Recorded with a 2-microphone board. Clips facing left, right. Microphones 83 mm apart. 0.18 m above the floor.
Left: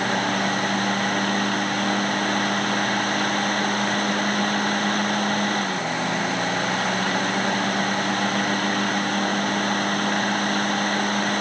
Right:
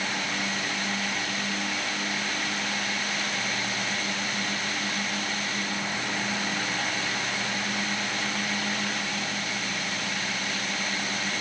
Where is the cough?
I don't hear a cough.